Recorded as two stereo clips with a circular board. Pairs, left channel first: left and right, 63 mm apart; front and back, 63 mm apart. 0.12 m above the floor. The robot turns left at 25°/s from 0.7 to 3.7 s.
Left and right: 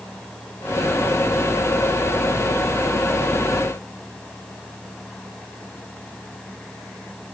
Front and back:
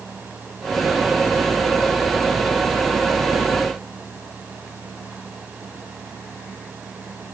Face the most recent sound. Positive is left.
No sound to turn to.